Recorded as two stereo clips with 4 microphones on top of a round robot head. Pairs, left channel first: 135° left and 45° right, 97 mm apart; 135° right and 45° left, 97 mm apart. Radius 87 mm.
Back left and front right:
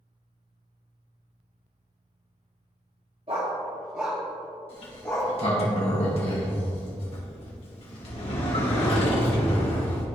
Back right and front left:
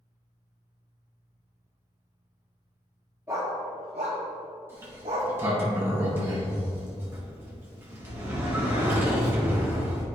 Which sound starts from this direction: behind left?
A sliding door, at 4.7 s.